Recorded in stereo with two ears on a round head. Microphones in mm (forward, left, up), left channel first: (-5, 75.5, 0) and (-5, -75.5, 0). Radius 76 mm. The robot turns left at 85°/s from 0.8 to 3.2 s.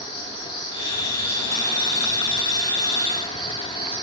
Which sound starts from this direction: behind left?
An insect, at 0.0 s.